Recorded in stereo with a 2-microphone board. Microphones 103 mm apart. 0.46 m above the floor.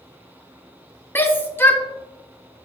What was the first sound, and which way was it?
A shout, 20° left (ahead or behind).